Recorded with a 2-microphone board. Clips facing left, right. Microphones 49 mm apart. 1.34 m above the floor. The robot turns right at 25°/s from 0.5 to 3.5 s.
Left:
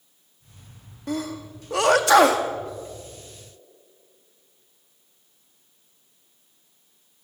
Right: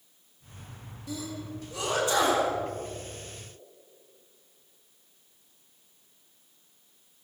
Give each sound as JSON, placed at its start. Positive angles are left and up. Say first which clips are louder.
{"t": 1.1, "sound": "a sneeze", "louder": "left 7 dB", "side_deg": 50, "distance_m": 1.9}